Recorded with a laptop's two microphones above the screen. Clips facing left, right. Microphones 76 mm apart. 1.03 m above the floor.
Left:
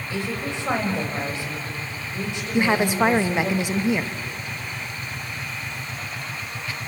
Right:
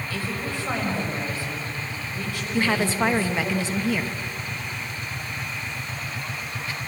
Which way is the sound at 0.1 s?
20° left (ahead or behind).